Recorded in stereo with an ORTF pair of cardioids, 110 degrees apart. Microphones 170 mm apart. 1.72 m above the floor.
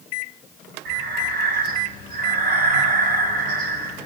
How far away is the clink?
No clink in this recording.